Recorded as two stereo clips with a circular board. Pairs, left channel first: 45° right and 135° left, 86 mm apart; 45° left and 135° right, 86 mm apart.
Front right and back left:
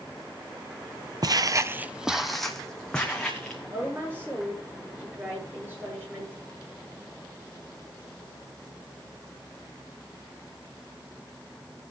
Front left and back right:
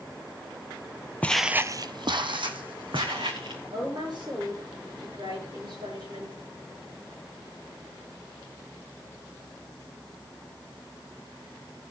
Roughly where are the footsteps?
Behind left.